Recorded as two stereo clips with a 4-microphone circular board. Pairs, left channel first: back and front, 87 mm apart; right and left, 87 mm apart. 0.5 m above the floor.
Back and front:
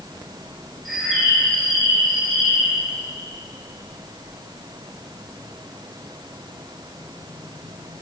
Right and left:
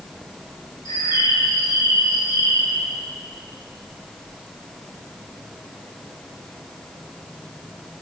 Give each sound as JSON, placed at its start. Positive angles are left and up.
{"t": 0.8, "sound": "a bird", "azimuth_deg": -90, "distance_m": 1.4}